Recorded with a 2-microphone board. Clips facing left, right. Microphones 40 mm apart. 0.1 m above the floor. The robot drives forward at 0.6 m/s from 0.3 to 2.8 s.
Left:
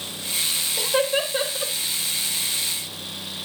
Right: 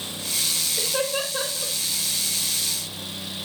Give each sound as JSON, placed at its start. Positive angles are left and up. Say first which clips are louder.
{"t": 0.8, "sound": "laughter", "louder": "left 5 dB", "side_deg": 60, "distance_m": 3.0}